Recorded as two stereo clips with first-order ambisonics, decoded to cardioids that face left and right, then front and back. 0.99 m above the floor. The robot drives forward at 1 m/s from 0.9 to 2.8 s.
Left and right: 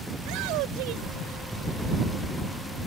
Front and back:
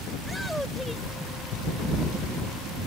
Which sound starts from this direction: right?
A shout, at 0.2 s.